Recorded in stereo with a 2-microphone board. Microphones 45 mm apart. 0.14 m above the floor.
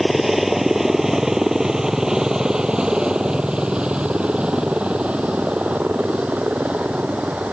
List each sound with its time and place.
0.0 s a helicopter: 5° right (ahead or behind); by 7.5 s 30° right (ahead or behind)